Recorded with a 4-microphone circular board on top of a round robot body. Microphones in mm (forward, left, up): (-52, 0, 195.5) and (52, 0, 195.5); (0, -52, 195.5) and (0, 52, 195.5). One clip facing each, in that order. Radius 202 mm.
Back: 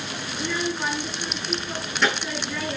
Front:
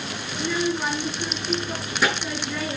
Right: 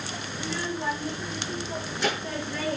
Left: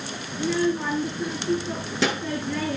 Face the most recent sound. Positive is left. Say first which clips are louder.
# front 3 dB, left 10 dB
turn(degrees=80)